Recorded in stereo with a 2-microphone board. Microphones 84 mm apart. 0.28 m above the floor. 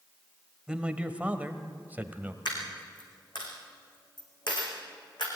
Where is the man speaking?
10° right (ahead or behind), 1.2 m; by 2.4 s 25° right (ahead or behind), 1.3 m.